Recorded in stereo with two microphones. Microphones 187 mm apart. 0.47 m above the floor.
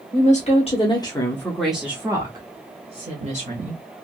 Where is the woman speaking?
45° left (ahead or behind), 1.2 m; by 3.8 s 45° right (ahead or behind), 1.6 m.